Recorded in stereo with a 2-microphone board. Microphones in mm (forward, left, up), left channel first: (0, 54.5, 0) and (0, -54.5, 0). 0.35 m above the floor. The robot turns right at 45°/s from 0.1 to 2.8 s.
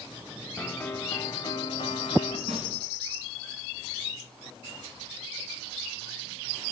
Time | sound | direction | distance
0.6 | a piano | 5° left | 0.8 m
2.5 | a snare drum | 65° right (ahead or behind) | 2.5 m